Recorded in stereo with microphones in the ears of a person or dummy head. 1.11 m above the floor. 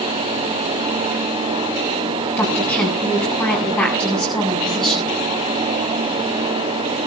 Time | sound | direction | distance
2.4 | a woman speaking | 15° left (ahead or behind) | 8.5 m